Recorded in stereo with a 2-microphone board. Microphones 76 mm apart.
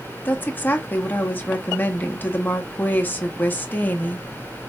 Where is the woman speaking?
25° left (ahead or behind), 0.9 m.